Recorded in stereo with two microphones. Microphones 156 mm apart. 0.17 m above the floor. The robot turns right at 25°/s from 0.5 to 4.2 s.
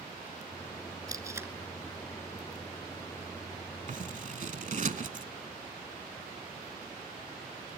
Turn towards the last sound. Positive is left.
turn(degrees=-55)  # may be behind; listen again after turning